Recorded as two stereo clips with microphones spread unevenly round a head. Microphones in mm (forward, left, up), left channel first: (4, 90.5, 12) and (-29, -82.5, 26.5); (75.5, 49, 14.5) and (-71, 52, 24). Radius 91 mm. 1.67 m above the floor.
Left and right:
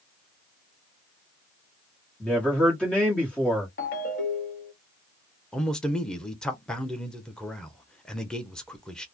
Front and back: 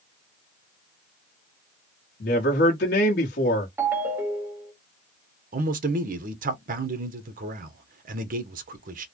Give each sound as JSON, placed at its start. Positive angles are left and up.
{"t": 2.2, "sound": "a man speaking", "azimuth_deg": -5, "distance_m": 1.3}
{"t": 3.8, "sound": "a ringtone", "azimuth_deg": 110, "distance_m": 1.5}
{"t": 5.5, "sound": "a man speaking", "azimuth_deg": 165, "distance_m": 0.9}